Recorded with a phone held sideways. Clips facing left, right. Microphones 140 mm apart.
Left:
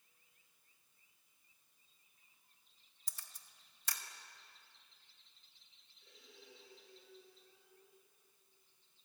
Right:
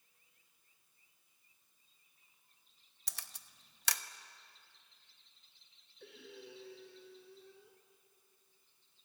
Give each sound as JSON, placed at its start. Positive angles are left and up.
{"t": 3.1, "sound": "a camera shutter", "side_deg": -80, "distance_m": 0.9}
{"t": 6.0, "sound": "breathing", "side_deg": -75, "distance_m": 2.5}